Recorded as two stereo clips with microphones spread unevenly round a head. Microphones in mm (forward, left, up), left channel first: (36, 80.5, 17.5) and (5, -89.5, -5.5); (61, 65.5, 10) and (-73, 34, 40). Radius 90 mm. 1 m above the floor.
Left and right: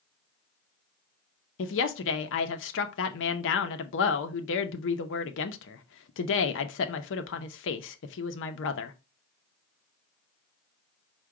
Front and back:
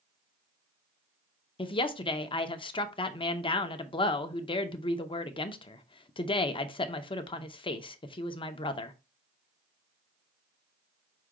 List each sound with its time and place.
1.6 s a woman speaking: 65° left, 0.6 m